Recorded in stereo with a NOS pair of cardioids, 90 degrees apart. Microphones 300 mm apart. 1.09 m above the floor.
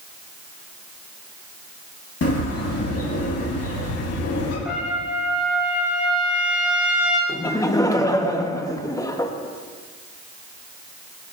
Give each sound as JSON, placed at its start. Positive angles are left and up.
{"t": 2.2, "sound": "a bird", "azimuth_deg": 55, "distance_m": 3.5}
{"t": 4.7, "sound": "a trumpet", "azimuth_deg": -5, "distance_m": 5.5}
{"t": 7.3, "sound": "laughter", "azimuth_deg": 10, "distance_m": 1.1}